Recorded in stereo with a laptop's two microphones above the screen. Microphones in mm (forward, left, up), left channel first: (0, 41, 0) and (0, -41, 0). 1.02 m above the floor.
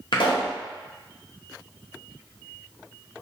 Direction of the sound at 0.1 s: 80° left.